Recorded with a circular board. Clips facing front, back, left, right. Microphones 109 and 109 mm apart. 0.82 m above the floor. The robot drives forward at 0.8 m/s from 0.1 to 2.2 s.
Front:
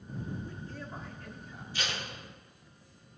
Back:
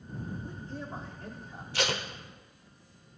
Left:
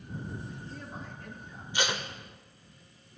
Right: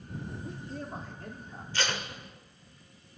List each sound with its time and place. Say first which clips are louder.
0.4 s a man speaking: back 3 dB, right 4 dB; 110° right, 2 m; by 1.6 s 135° right, 2.5 m
1.7 s tape being pulled: back 7 dB, left 1 dB; 165° left, 1.0 m; by 2.0 s 170° left, 1.2 m